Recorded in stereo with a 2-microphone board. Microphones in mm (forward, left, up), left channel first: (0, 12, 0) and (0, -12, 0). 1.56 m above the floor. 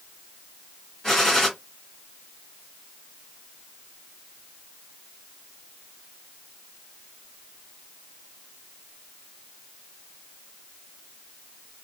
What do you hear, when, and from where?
1.0 s a gunshot: 20° left (ahead or behind), 1.9 m